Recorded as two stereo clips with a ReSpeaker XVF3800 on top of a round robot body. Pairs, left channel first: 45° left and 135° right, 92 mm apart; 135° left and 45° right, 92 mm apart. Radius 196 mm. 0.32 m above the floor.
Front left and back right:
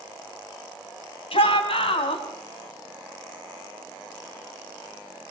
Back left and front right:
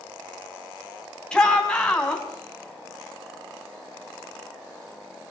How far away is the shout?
About 4 m.